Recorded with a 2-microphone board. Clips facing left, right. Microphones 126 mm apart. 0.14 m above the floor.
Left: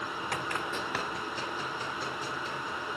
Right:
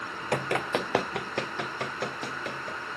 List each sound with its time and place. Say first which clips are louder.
0.3 s running footsteps: right 9 dB; 55° right (ahead or behind), 0.6 m; by 2.8 s 65° right (ahead or behind), 4 m